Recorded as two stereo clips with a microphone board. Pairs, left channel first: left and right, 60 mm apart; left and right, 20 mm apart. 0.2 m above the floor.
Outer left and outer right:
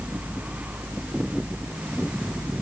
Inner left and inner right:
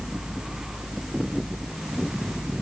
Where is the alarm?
I don't hear an alarm.